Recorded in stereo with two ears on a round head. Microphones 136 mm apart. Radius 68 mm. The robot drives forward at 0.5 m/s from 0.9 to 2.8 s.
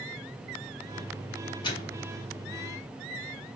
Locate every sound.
1.6 s a microwave: 35° left (ahead or behind), 3 m; by 2.0 s 30° left (ahead or behind), 3 m